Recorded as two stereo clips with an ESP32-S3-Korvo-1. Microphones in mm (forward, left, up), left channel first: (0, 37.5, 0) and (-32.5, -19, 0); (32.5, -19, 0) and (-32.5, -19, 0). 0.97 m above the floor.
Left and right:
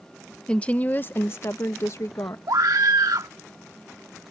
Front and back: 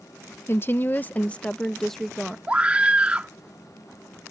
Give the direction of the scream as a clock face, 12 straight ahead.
4 o'clock.